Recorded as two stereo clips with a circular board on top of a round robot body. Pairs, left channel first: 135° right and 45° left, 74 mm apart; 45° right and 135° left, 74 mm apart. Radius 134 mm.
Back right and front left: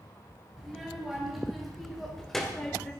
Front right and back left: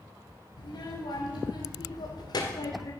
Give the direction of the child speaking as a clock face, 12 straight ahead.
1 o'clock.